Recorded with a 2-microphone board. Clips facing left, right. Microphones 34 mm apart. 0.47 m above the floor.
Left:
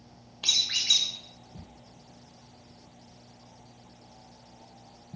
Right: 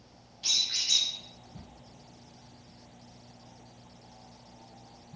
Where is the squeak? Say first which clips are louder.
Left 4 dB; 65° left (ahead or behind), 1.1 m.